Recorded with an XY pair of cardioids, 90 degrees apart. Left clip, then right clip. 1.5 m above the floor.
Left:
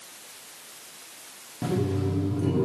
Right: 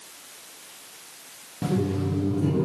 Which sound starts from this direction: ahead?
Laughter, at 1.6 s.